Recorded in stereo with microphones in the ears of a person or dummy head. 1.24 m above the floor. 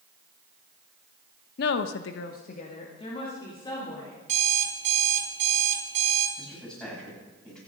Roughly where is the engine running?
No engine running in this recording.